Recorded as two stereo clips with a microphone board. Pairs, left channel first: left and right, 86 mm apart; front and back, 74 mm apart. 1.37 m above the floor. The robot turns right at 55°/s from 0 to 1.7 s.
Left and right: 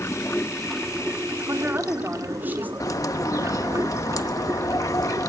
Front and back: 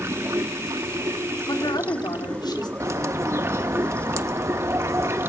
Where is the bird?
135° left, 1.1 m.